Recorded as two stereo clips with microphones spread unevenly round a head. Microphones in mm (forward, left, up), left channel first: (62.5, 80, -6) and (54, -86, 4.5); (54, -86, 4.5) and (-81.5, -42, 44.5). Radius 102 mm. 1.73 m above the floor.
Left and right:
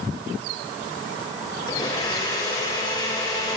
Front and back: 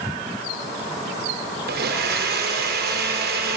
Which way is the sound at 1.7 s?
160° left.